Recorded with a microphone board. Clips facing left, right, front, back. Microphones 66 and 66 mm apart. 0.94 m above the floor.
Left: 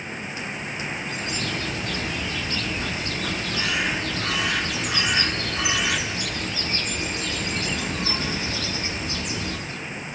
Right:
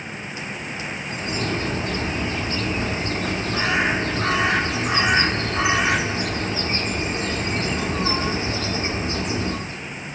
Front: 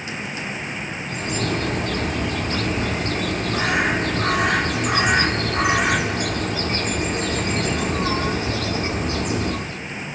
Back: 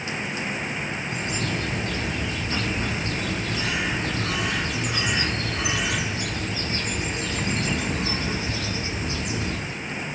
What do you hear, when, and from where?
1.1 s a bird: 30° right, 0.7 m